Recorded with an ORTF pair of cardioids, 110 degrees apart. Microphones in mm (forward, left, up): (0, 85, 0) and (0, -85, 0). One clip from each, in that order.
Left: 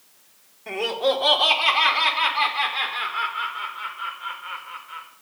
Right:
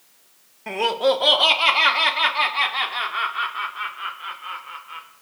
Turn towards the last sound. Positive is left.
turn(degrees=-35)